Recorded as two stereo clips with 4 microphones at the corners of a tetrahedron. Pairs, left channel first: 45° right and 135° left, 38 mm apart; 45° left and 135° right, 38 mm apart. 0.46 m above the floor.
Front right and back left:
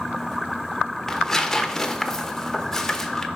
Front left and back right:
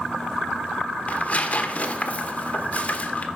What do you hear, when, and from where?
1.1 s tearing paper: 25° left, 0.8 m